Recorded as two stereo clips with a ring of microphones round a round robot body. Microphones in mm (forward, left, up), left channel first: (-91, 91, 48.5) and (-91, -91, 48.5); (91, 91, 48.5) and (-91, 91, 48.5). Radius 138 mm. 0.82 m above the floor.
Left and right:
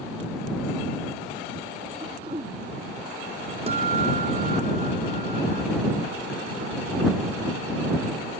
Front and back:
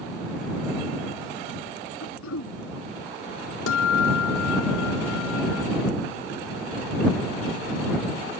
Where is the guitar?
20° right.